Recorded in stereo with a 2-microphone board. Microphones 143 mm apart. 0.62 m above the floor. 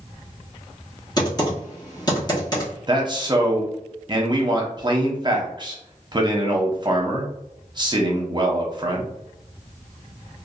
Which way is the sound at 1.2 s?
30° left (ahead or behind).